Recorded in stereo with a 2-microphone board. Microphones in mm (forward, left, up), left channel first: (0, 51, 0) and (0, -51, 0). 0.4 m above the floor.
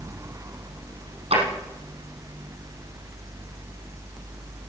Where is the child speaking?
I don't hear a child speaking.